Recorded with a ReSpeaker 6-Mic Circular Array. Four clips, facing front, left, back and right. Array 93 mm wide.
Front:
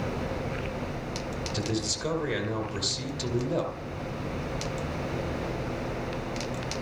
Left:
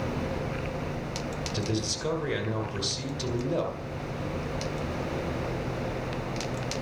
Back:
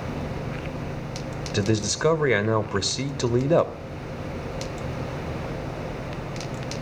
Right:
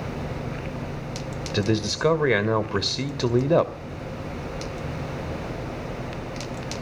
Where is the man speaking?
135° right, 2 m.